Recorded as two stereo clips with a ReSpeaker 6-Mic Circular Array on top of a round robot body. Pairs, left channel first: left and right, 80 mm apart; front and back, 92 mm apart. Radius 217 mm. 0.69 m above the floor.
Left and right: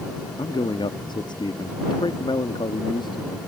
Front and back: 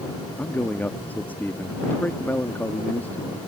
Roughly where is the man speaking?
Left.